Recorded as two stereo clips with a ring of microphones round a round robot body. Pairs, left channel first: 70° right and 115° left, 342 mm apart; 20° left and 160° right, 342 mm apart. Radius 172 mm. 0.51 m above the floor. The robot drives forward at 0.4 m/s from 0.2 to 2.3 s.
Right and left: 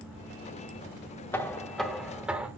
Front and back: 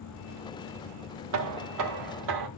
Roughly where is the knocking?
Behind right.